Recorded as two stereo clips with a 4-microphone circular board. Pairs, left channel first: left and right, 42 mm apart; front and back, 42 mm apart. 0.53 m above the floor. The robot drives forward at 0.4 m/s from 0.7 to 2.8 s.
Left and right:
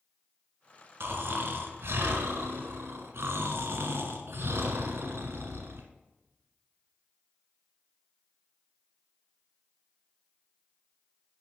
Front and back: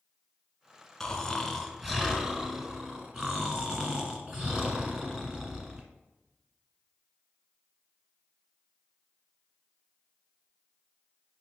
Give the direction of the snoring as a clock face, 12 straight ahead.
3 o'clock.